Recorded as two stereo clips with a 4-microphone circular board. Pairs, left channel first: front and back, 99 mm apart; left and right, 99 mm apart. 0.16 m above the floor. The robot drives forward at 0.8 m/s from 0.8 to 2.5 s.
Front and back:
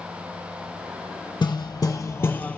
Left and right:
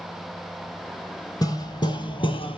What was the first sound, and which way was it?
Hammering, 40° left.